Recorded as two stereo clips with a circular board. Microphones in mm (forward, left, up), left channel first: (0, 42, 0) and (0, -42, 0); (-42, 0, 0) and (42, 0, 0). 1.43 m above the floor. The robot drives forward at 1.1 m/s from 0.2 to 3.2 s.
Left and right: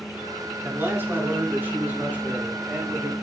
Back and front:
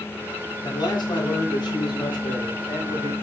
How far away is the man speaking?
About 3 m.